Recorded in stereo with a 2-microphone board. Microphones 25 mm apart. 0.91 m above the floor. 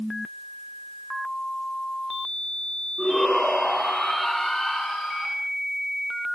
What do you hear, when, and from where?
3.0 s a shout: 10° left (ahead or behind), 9 m